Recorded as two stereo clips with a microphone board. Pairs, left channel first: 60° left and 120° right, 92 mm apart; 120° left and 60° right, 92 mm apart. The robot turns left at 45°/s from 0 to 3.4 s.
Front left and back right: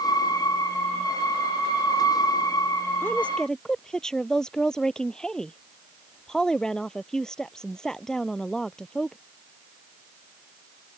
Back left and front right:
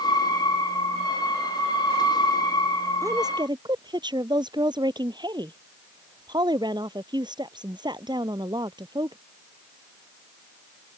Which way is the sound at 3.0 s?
5° right.